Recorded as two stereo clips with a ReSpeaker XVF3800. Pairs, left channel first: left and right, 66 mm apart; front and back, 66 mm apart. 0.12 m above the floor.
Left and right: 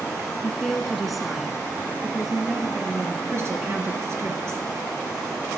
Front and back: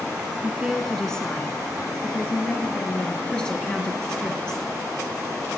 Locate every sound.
0.4 s a woman speaking: 160° left, 1.1 m; by 3.2 s 15° right, 2 m
3.3 s a woman speaking: 75° right, 2 m